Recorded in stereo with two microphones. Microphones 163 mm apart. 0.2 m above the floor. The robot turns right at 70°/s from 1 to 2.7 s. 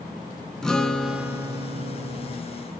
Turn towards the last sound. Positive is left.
turn(degrees=-65)